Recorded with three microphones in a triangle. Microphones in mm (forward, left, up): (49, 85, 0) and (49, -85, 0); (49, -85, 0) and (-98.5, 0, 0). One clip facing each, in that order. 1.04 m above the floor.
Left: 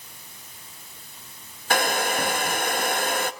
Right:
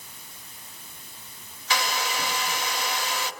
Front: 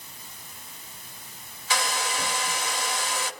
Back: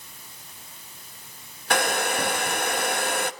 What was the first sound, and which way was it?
A hair dryer, 125° left.